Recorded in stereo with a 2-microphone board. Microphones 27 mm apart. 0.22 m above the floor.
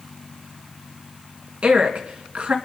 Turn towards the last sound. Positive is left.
turn(degrees=-50)  # may be behind; listen again after turning